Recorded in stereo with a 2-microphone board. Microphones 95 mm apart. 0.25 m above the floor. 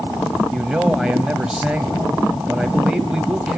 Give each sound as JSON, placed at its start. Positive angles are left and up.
{"t": 0.5, "sound": "a man speaking", "side_deg": -5, "distance_m": 1.0}